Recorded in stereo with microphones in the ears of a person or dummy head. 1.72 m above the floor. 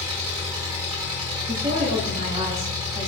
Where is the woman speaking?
25° right (ahead or behind), 0.6 m.